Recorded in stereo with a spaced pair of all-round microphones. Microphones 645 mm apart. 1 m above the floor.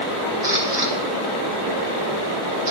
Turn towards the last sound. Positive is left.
turn(degrees=35)  # may be behind; listen again after turning